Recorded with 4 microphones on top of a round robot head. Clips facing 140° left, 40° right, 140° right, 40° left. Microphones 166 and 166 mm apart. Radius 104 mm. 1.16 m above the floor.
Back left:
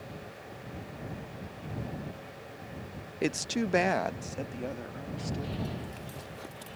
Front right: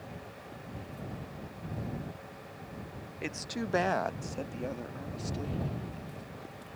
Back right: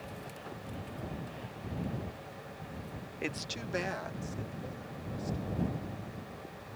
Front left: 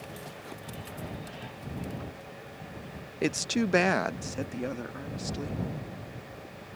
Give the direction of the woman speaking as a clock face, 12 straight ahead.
9 o'clock.